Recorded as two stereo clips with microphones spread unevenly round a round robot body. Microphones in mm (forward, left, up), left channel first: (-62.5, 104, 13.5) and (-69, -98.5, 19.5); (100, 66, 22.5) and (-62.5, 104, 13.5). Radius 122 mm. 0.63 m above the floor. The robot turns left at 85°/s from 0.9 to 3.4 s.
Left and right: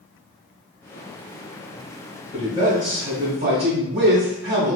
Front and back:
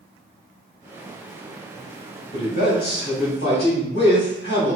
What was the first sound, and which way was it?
A man speaking, 40° left.